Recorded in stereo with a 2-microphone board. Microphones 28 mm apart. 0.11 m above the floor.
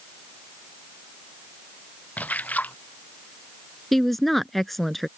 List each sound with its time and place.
2.2 s a splash: 75° left (ahead or behind)
3.9 s a woman speaking: 5° left (ahead or behind)